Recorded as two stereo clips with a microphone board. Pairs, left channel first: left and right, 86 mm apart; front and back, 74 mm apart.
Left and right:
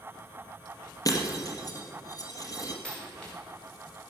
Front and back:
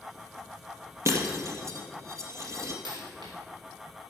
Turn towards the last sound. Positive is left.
turn(degrees=170)